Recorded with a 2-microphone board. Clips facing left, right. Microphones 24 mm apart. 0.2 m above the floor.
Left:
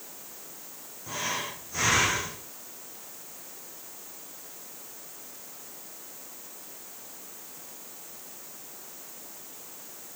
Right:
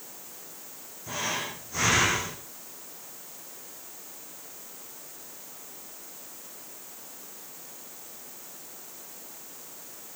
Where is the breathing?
5° right (ahead or behind), 4.5 m.